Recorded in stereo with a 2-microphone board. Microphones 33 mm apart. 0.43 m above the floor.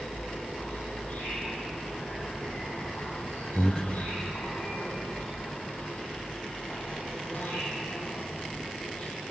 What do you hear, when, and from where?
0.0 s an insect: 80° left, 9.5 m
3.5 s breathing: 25° left (ahead or behind), 0.9 m